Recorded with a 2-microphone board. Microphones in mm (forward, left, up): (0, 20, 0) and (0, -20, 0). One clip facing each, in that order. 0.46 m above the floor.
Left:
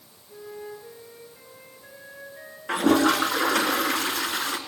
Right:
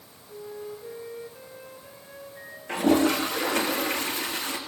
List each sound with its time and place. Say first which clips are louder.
0.3 s a flute: right 1 dB; 15° left (ahead or behind), 7.5 m
2.7 s a toilet flushing: left 2 dB; 85° left, 3 m